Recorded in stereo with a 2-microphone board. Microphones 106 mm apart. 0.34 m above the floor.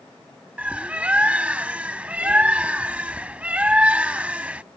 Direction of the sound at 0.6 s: 10° right (ahead or behind).